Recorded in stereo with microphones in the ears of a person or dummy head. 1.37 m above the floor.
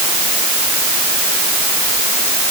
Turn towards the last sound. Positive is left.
No sound to turn to.